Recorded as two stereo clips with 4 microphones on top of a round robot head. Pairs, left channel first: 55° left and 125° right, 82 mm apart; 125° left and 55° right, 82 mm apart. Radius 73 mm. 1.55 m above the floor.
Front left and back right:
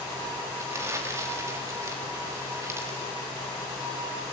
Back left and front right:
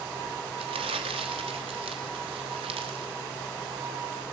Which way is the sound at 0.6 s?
70° right.